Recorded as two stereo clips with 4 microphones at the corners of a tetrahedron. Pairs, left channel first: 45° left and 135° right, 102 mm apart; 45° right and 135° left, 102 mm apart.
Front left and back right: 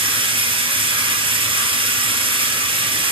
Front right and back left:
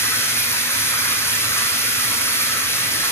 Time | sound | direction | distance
0.0 | running water | 105° right | 2 m